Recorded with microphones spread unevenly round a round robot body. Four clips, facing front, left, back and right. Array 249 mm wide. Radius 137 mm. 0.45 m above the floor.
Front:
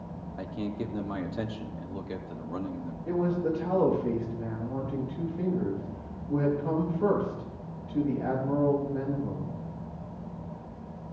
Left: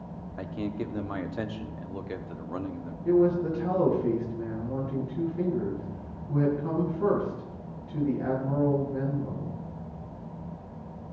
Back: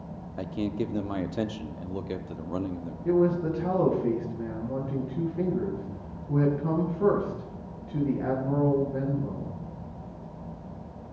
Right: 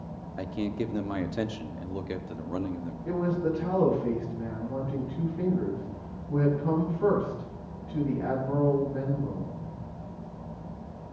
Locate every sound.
0.4 s a man speaking: 145° right, 1.0 m
3.0 s a man speaking: 165° left, 8 m